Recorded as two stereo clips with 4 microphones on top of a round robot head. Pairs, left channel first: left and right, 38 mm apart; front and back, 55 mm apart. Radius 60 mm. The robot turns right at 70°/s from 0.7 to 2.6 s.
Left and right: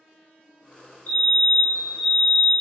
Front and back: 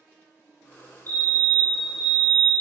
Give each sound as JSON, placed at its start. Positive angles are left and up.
{"t": 1.1, "sound": "a fire alarm", "azimuth_deg": 50, "distance_m": 3.5}